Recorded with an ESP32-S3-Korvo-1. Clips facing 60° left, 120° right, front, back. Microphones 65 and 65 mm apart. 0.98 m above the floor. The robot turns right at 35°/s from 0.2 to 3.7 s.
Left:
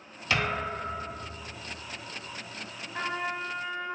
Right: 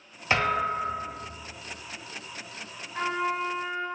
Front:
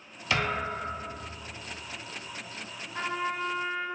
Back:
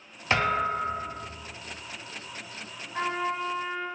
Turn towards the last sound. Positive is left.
turn(degrees=160)